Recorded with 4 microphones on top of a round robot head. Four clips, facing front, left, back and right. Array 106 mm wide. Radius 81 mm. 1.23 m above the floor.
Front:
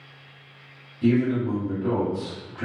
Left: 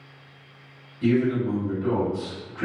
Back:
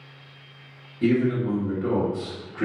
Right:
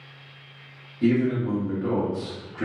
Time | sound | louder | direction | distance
1.0 | a man speaking | even, even | 150° right | 1.3 m